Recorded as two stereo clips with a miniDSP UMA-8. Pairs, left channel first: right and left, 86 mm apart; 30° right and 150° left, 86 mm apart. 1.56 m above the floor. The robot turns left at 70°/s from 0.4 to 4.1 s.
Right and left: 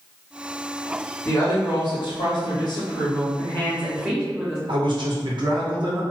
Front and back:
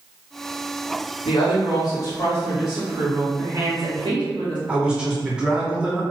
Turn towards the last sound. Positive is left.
turn(degrees=70)